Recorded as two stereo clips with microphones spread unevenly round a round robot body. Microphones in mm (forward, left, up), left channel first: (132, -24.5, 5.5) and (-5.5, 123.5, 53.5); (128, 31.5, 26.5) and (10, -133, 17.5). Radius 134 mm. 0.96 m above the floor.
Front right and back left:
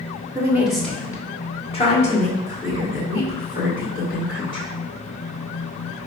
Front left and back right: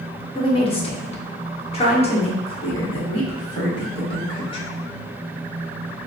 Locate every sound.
0.3 s a woman speaking: 55° left, 0.7 m; by 4.7 s 10° right, 3 m